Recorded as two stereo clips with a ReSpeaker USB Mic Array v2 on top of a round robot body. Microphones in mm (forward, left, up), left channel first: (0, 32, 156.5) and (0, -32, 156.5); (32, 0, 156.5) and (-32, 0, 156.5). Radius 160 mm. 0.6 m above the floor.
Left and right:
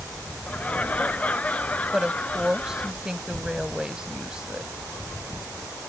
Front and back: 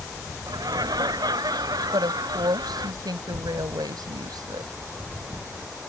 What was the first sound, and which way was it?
Laughter, 160° left.